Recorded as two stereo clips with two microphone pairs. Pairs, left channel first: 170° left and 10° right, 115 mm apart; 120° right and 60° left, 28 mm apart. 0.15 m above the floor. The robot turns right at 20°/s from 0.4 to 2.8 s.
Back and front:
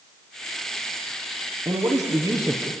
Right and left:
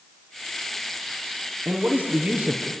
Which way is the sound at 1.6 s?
35° left.